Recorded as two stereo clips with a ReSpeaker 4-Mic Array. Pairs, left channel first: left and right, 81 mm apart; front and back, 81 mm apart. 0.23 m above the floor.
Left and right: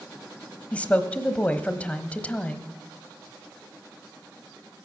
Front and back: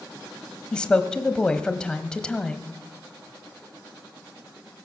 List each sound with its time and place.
0.7 s a woman speaking: 55° left, 1.0 m